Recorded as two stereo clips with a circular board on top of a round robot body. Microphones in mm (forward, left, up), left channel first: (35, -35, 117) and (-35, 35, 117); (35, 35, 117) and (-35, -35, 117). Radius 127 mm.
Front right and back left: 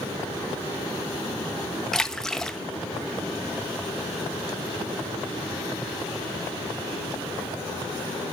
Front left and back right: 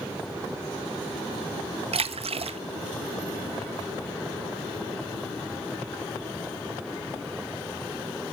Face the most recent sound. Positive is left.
turn(degrees=-130)